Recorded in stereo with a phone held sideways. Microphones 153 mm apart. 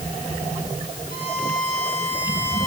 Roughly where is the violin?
Left.